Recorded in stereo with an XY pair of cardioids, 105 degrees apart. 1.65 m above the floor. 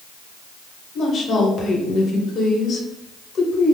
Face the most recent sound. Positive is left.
turn(degrees=50)